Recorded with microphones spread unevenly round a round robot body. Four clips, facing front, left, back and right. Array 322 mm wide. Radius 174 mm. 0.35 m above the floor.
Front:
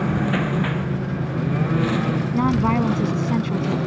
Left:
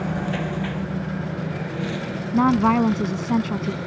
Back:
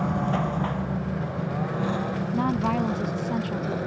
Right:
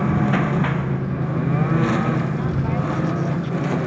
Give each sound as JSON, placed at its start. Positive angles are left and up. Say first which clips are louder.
{"t": 0.0, "sound": "a lawn mower", "louder": "right 6 dB, front 4 dB", "azimuth_deg": -75}
{"t": 2.3, "sound": "a woman speaking", "louder": "left 7 dB, front 5 dB", "azimuth_deg": 65}